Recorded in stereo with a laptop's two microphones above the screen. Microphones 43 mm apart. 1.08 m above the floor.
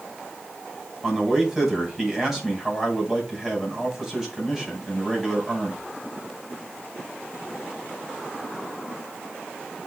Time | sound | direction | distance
1.0 | a man speaking | 5° right (ahead or behind) | 5.5 m